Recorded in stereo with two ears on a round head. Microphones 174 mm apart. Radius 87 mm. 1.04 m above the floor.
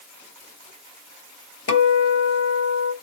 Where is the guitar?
65° left (ahead or behind), 1.6 m.